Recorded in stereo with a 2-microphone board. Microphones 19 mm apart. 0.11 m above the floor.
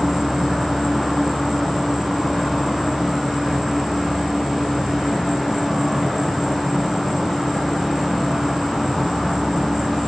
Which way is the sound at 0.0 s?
20° left (ahead or behind).